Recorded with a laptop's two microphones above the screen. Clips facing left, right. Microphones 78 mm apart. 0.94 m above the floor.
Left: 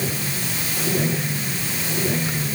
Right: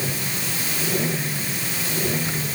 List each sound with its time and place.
Only background noise.